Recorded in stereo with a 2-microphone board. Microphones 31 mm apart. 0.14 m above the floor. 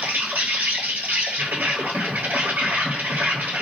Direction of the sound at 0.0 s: 65° right (ahead or behind).